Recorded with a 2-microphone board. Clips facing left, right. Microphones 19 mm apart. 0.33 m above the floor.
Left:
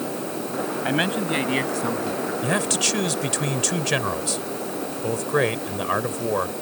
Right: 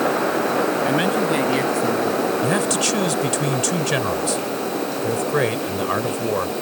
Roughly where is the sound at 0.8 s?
Centre.